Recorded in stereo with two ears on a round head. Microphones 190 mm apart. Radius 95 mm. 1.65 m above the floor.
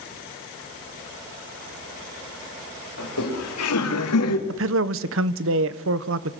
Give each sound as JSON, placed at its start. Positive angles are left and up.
{"t": 3.0, "sound": "laughter", "side_deg": 80, "distance_m": 5.5}
{"t": 4.5, "sound": "a man speaking", "side_deg": -65, "distance_m": 1.2}